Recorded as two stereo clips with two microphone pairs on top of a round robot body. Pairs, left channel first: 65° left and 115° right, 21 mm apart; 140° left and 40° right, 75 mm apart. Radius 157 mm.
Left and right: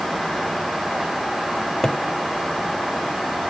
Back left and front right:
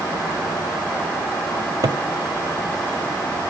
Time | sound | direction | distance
1.6 | a cupboard door | 5° right | 1.1 m